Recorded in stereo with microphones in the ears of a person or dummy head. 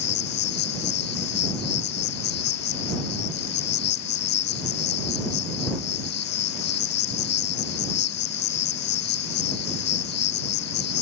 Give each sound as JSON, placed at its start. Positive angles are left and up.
{"t": 0.0, "sound": "an insect", "side_deg": 50}